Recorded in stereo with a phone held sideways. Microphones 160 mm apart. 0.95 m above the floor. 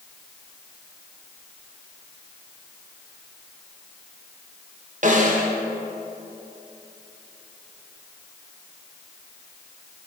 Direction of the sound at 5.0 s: 50° right (ahead or behind).